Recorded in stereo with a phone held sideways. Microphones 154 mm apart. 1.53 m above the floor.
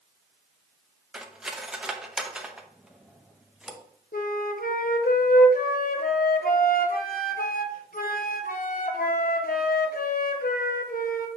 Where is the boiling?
I don't hear boiling.